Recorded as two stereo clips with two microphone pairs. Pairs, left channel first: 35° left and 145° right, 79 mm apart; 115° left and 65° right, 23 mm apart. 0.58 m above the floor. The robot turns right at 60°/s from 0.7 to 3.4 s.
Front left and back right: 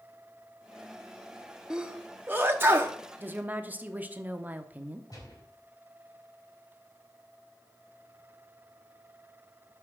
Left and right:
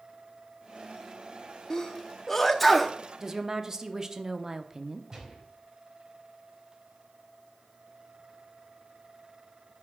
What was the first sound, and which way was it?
A sneeze, 145° left.